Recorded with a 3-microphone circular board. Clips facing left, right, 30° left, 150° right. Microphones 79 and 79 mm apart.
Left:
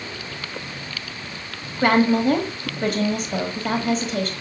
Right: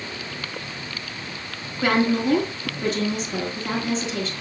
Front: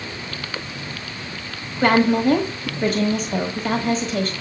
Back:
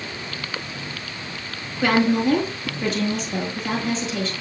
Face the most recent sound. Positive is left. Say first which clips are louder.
# left 3 dB, front 2 dB
turn(degrees=60)